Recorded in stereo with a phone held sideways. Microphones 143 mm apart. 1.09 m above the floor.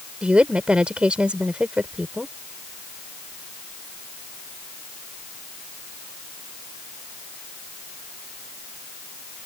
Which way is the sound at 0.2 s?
10° right (ahead or behind).